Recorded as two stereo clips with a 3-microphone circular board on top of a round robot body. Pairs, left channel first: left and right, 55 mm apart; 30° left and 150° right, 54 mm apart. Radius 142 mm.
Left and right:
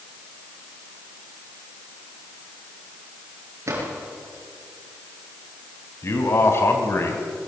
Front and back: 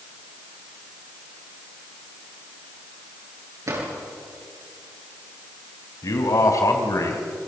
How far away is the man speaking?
About 4 m.